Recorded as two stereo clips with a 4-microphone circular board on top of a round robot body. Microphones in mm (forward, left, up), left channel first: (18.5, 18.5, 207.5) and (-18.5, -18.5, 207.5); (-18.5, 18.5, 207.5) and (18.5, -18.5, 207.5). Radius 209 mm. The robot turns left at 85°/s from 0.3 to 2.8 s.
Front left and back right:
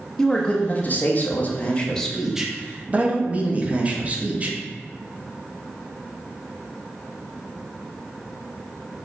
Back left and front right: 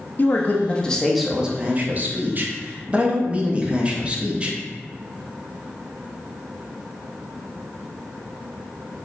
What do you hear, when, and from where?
0.2 s a man speaking: 115° left, 0.8 m; by 4.6 s 95° right, 0.8 m